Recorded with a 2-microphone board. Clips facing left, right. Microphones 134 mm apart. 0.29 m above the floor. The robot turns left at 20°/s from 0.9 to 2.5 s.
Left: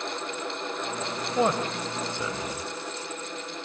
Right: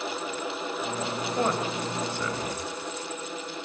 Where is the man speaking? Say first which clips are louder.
Left 3 dB; 20° left (ahead or behind), 1.5 m; by 2.7 s 15° left (ahead or behind), 1.5 m.